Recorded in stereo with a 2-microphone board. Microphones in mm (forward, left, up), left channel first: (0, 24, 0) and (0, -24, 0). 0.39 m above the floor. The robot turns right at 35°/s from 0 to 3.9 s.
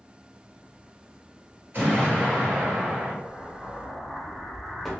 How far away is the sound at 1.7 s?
About 2.0 m.